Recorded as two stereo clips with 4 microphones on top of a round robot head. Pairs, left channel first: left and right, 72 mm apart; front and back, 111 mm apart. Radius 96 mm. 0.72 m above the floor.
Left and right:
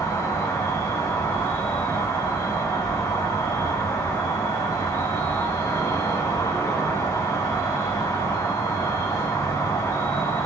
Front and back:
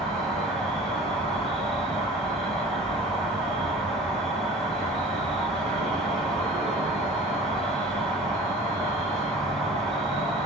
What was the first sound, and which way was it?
An insect, 85° left.